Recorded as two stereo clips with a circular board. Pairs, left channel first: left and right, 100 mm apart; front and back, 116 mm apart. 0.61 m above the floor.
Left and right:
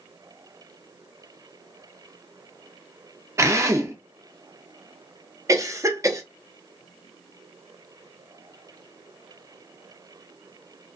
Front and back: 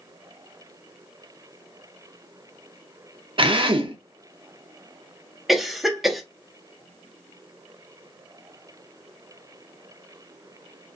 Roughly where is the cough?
Right.